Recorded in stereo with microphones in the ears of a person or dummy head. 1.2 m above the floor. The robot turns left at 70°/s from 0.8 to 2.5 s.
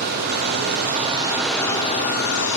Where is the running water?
135° right, 1.3 m; by 2.6 s 105° left, 1.3 m.